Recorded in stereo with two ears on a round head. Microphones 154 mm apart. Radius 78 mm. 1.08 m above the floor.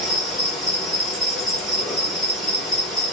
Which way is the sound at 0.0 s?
Centre (ahead or behind).